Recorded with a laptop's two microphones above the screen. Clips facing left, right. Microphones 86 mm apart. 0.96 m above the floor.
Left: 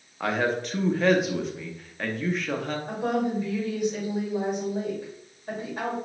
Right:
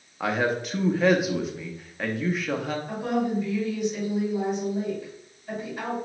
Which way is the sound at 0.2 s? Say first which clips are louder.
Even; 5° right (ahead or behind).